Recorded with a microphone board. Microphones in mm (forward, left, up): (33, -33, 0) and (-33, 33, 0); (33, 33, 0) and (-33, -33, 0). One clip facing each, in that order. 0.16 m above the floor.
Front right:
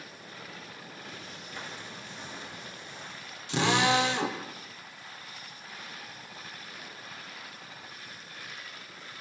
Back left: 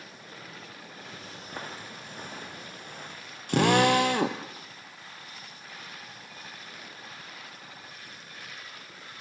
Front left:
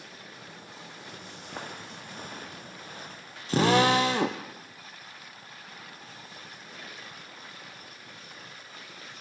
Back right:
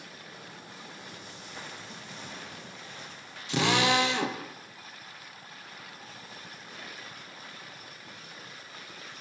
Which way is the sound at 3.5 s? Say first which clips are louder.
Back left 4 dB, front left 4 dB; 95° left.